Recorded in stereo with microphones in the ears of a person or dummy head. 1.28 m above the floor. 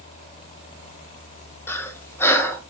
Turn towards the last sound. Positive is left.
turn(degrees=10)  # may be behind; listen again after turning